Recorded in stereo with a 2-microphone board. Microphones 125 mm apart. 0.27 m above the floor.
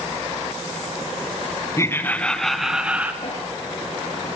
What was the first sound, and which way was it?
Laughter, 25° left (ahead or behind).